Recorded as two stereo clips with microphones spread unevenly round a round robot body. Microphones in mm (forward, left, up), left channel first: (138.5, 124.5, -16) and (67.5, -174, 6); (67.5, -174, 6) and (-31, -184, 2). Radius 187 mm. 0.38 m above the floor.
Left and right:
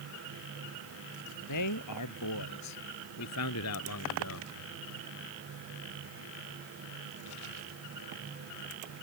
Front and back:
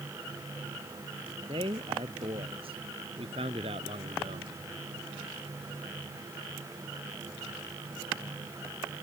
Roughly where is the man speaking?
Behind left.